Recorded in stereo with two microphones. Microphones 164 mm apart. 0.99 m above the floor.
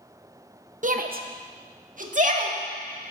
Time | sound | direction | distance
0.8 | a shout | 50° right (ahead or behind) | 0.8 m